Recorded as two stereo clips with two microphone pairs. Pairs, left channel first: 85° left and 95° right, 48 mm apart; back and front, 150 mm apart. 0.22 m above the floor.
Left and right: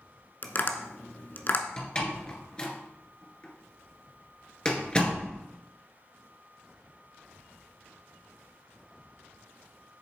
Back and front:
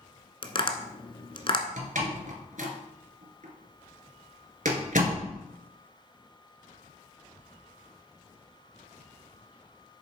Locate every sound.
0.4 s tapping: 130° left, 1.0 m
1.8 s a door slam: 20° left, 2 m